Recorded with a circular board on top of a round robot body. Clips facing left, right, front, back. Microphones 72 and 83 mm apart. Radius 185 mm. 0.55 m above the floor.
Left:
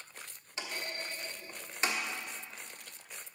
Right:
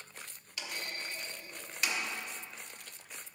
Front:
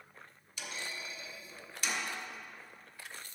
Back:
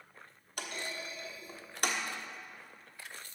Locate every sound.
0.6 s a clunk: 150° left, 1.2 m